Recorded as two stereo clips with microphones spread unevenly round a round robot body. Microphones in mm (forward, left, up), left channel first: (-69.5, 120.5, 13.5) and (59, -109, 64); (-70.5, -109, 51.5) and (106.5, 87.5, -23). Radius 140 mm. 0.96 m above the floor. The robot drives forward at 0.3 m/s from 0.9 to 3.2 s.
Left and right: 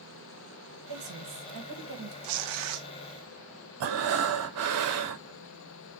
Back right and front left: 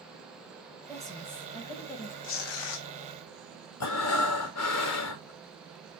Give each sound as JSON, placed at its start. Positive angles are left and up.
{"t": 0.9, "sound": "a woman speaking", "azimuth_deg": -50, "distance_m": 1.4}
{"t": 2.2, "sound": "tearing paper", "azimuth_deg": -80, "distance_m": 0.5}
{"t": 3.8, "sound": "breathing", "azimuth_deg": -100, "distance_m": 0.8}